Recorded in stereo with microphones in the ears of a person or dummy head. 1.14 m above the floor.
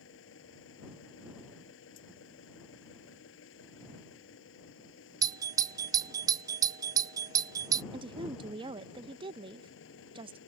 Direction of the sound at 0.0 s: 80° left.